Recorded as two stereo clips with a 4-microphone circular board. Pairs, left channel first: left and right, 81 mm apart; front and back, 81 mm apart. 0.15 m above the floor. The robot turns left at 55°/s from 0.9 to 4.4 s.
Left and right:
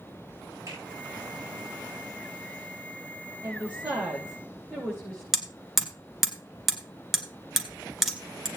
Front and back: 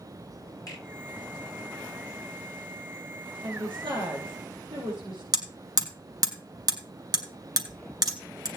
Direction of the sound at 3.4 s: 145° right.